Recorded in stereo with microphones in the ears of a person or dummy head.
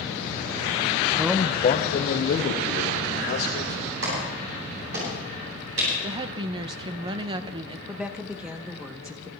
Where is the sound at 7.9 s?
5° right (ahead or behind), 0.8 m.